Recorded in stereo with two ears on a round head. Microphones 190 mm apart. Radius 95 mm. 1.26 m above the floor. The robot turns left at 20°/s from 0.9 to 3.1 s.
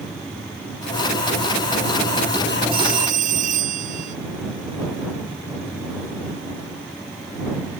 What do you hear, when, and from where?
2.7 s a phone ringing: 45° right (ahead or behind); by 4.2 s 35° right (ahead or behind)